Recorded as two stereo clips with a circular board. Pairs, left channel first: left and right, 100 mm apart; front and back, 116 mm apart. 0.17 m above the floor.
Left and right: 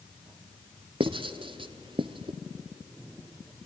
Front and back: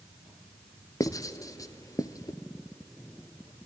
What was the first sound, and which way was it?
Writing, 60° right.